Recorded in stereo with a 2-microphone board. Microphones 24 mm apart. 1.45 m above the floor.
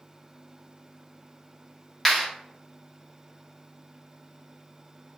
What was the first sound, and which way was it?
A clap, 20° left (ahead or behind).